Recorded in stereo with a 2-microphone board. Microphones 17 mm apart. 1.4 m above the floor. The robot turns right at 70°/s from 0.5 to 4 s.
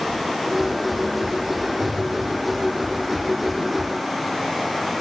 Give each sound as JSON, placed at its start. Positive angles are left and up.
{"t": 1.8, "sound": "an explosion", "azimuth_deg": 50, "distance_m": 1.6}